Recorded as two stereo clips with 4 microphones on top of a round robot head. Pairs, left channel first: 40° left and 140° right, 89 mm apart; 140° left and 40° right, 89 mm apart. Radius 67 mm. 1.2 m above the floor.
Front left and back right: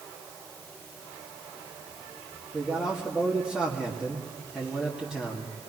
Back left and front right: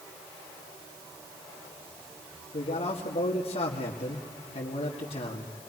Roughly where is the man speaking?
Behind left.